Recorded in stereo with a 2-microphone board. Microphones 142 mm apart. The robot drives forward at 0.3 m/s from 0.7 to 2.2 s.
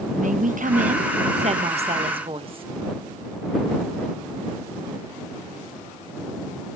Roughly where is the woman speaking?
Right.